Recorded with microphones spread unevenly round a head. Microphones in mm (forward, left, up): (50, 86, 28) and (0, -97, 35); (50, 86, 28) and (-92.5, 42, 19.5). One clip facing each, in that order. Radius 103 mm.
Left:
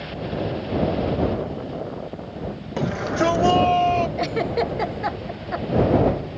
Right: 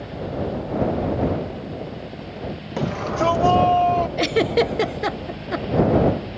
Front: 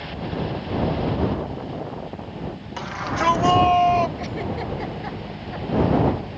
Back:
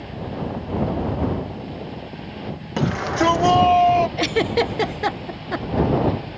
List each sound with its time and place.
2.8 s a shout: 165° left; by 4.1 s 135° left
4.2 s a giggle: 165° right